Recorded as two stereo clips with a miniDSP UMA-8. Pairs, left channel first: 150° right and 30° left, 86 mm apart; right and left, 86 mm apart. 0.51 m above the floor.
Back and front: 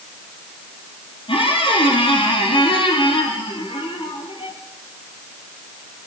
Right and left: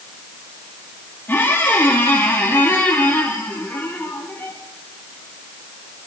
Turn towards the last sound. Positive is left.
turn(degrees=-160)